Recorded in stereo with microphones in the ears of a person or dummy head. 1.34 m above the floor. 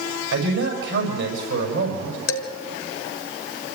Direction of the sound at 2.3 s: 75° left (ahead or behind).